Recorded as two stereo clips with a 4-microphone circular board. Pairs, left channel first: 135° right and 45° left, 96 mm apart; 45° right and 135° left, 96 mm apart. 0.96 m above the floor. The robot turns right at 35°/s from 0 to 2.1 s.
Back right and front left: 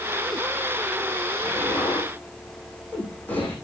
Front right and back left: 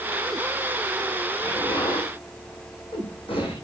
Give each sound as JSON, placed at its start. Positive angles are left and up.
{"t": 1.4, "sound": "an explosion", "azimuth_deg": -90, "distance_m": 8.0}